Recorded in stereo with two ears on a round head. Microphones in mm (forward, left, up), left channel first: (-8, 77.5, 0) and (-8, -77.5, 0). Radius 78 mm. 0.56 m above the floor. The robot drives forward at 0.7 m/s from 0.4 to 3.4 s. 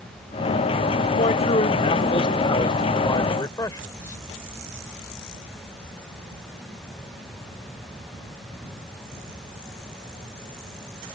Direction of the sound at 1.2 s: 40° left (ahead or behind).